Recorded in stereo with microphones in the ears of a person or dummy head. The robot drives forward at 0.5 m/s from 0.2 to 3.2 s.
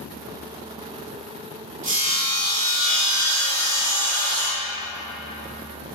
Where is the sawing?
55° right (ahead or behind), 1.6 m; by 4.8 s 80° right, 1.3 m.